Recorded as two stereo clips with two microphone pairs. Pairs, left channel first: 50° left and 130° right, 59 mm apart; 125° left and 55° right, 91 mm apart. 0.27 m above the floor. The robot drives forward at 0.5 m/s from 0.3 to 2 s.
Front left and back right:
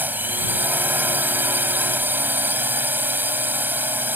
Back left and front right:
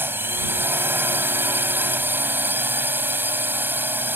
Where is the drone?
100° right; by 4.2 s 105° right.